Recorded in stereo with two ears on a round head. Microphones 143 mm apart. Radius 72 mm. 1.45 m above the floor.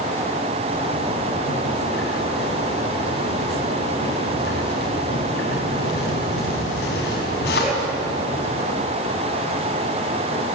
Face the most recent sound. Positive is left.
turn(degrees=80)